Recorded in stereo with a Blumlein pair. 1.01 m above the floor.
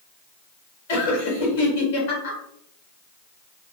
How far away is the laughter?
About 1.4 m.